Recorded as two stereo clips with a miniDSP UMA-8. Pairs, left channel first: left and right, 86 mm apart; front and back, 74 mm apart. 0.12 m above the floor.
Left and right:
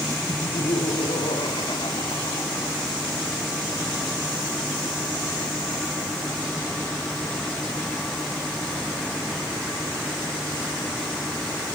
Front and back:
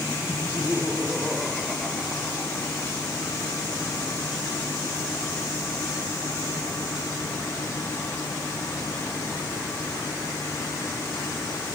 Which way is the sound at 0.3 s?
95° left.